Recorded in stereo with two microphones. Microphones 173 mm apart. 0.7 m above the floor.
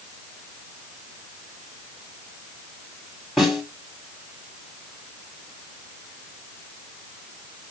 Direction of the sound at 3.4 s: Centre (ahead or behind).